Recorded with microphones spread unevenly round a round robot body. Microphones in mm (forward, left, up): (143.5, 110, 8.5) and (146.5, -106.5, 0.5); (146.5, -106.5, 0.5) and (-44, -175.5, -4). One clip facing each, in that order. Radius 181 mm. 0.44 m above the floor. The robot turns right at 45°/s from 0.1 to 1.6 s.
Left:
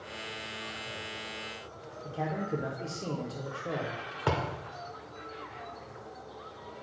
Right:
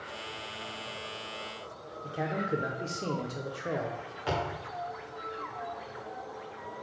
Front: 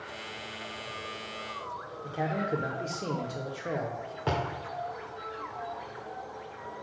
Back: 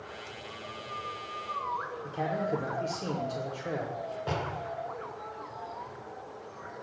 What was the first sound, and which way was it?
A man speaking, 50° right.